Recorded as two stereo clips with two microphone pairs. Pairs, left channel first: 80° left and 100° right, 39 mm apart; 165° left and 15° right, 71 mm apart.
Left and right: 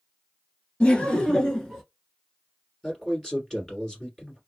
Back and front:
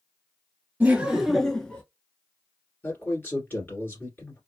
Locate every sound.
0.8 s laughter: 40° left, 1.5 m; by 1.8 s 155° left, 1.2 m
2.8 s a man speaking: 140° left, 1.9 m